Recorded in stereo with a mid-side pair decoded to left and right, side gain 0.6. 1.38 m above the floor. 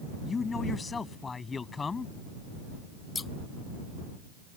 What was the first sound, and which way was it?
A man speaking, 25° left.